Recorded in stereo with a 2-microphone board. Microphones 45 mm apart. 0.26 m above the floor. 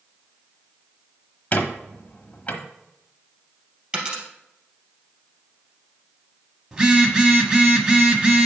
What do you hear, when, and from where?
1.5 s a squeak: 30° left (ahead or behind), 1.0 m
3.9 s a dropped coin: 20° right (ahead or behind), 2.5 m
6.7 s a phone buzzing: 15° right (ahead or behind), 1.0 m